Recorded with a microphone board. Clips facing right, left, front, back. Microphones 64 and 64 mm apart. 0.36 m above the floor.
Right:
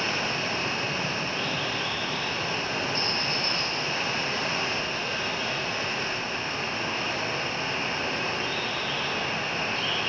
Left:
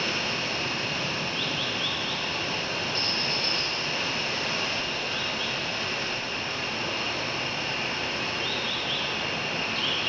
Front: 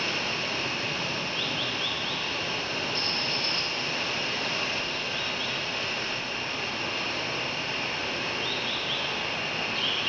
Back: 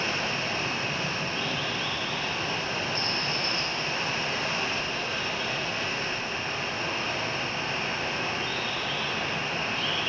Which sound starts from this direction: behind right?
Running water, at 0.0 s.